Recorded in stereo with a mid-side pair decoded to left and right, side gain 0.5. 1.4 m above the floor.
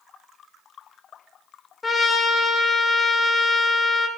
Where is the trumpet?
30° left, 1.8 m.